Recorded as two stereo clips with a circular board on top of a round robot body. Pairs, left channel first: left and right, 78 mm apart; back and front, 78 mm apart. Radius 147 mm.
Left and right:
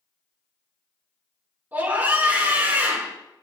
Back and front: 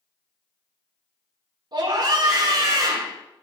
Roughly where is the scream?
Ahead.